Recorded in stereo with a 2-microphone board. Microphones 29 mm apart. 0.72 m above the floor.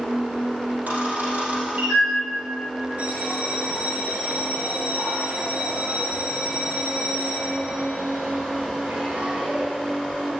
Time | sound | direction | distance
0.9 | a camera shutter | 85° right | 4 m
3.0 | a bell | 85° right | 4 m